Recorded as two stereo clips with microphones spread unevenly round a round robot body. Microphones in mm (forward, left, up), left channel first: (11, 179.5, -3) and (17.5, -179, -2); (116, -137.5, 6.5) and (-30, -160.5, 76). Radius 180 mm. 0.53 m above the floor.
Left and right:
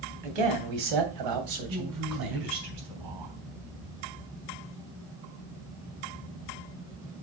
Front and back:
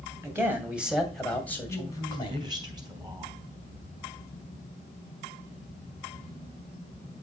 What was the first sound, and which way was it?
A man speaking, 95° right.